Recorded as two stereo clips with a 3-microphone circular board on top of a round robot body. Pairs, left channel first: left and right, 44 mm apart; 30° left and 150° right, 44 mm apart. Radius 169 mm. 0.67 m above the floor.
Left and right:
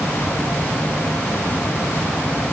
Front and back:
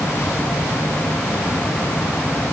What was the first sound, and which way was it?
Only background noise.